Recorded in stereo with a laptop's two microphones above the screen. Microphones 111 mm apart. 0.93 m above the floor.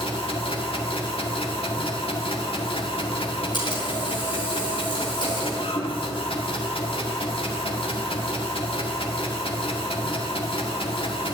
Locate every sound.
0.0 s a machine running: 55° left (ahead or behind), 1.7 m
3.5 s a camera shutter: 45° left (ahead or behind), 4.5 m